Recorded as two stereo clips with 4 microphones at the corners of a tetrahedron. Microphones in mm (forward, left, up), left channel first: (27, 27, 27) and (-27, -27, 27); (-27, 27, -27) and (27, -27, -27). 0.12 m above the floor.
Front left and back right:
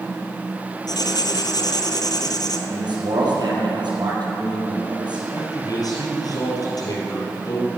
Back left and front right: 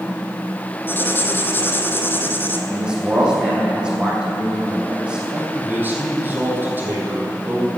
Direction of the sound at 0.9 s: 75° left.